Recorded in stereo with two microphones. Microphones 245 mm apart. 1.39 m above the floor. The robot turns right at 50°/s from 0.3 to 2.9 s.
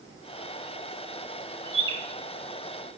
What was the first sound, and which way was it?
A bird, 50° right (ahead or behind).